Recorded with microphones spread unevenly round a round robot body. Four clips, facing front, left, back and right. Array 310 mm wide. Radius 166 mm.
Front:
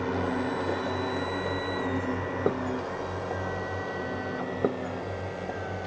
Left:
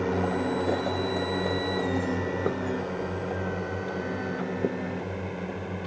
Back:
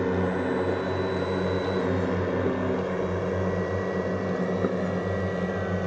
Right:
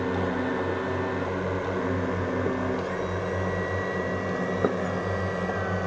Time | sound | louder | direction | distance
0.0 | a drone | even, back 3 dB | 160° left | ?